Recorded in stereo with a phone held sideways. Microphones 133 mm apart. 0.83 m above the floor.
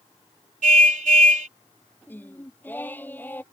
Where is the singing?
15° left (ahead or behind).